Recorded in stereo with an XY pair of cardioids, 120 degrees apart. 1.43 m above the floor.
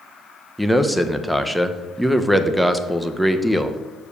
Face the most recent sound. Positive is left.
turn(degrees=0)